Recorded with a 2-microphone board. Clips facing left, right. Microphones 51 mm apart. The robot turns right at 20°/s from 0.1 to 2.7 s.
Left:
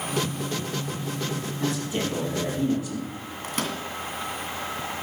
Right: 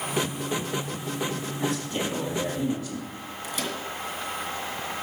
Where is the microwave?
55° left (ahead or behind), 2.5 m.